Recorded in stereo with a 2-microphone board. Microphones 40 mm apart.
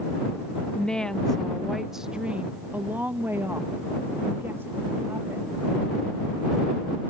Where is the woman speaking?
25° left (ahead or behind); by 5.6 s 75° right (ahead or behind).